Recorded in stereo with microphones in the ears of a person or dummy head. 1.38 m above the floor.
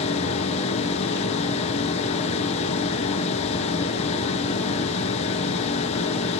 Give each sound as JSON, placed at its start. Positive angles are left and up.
{"t": 0.0, "sound": "a machine running", "side_deg": 40, "distance_m": 1.0}